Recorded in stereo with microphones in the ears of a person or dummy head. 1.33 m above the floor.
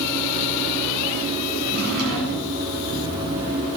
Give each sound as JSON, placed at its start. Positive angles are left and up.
{"t": 1.6, "sound": "a drawer", "side_deg": -60, "distance_m": 8.5}